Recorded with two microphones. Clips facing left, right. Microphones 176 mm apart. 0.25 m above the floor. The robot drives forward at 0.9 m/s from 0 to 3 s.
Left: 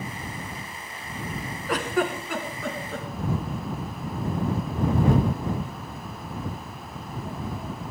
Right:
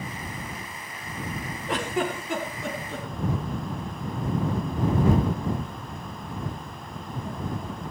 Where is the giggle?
25° right (ahead or behind), 3 m; by 3.1 s 20° right (ahead or behind), 4 m.